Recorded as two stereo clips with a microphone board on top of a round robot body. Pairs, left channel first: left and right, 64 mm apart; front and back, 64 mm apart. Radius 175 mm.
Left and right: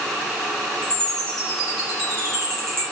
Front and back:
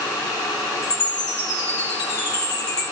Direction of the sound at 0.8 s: 5° left.